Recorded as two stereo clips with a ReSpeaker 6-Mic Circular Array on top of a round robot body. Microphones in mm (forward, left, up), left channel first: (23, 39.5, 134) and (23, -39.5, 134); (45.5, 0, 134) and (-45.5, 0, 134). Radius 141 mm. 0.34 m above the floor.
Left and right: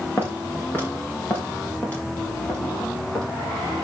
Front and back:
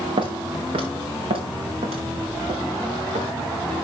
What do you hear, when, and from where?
0.2 s footsteps: 155° left, 2.5 m; by 3.3 s 160° left, 7 m